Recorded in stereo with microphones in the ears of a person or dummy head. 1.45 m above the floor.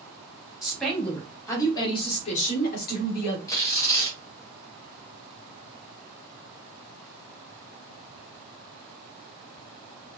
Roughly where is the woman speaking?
Centre.